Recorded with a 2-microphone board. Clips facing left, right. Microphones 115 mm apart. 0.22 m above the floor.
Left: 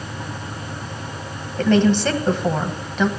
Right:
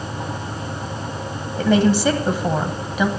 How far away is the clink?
I don't hear a clink.